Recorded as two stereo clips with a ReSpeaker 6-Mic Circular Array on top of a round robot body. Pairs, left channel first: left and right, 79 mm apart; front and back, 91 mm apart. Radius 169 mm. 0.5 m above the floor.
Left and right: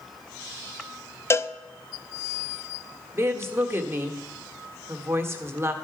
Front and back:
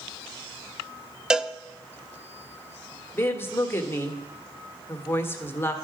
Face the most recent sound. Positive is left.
turn(degrees=-55)